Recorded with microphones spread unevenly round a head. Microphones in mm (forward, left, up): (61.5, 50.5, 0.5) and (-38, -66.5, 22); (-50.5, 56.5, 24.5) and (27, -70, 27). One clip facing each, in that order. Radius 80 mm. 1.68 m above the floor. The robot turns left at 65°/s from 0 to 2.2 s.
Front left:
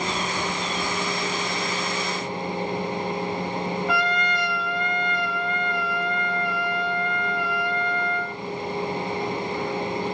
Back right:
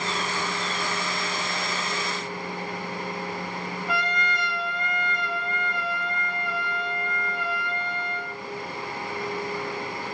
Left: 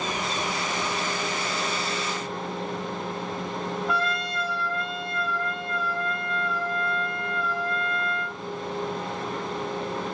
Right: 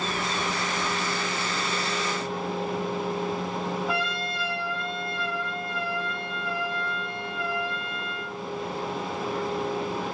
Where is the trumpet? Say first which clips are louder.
Even, left 2 dB; 30° left, 4 m.